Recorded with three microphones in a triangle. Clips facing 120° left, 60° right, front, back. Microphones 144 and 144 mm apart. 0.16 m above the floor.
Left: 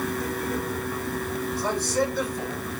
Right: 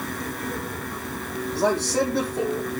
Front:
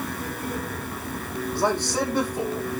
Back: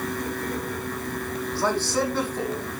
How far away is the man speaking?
About 8 m.